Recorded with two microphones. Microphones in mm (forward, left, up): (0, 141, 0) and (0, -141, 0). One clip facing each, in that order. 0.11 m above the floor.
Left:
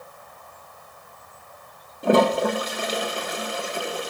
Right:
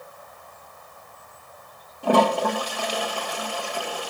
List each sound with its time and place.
2.0 s a toilet flushing: 25° left (ahead or behind), 1.1 m